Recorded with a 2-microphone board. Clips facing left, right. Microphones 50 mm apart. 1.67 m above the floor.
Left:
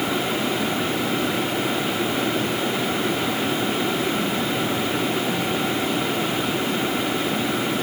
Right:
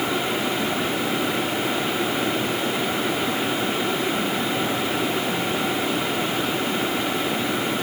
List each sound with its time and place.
Only background noise.